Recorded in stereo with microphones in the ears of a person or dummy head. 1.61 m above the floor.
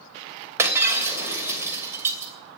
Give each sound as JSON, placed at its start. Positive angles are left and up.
{"t": 0.6, "sound": "breaking glass", "side_deg": -10, "distance_m": 2.5}